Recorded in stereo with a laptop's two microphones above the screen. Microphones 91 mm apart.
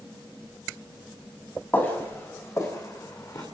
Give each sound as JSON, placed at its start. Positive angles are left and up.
{"t": 1.7, "sound": "footsteps", "side_deg": 25, "distance_m": 2.5}